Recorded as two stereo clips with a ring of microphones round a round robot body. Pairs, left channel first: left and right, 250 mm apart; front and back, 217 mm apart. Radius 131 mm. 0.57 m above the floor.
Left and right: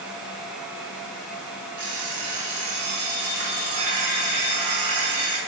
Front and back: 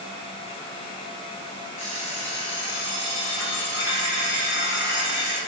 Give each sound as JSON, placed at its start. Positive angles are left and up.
{"t": 1.8, "sound": "an alarm clock", "azimuth_deg": -95, "distance_m": 3.0}